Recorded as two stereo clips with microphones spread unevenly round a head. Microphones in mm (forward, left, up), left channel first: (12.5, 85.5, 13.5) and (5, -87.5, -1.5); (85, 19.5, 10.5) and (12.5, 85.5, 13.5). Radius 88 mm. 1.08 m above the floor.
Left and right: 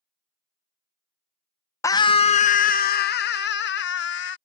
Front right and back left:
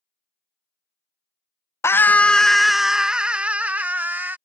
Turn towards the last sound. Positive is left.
turn(degrees=65)